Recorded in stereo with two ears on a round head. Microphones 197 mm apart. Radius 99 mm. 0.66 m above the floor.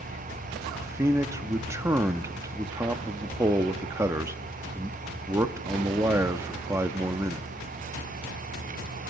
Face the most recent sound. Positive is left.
turn(degrees=-10)  # may be behind; listen again after turning